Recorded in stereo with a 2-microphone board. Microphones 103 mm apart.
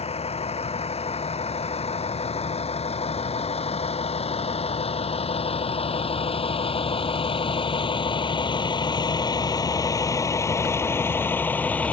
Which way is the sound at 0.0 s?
85° left.